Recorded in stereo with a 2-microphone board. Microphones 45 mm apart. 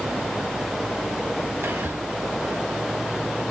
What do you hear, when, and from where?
1.6 s whispering: 60° right (ahead or behind), 2.5 m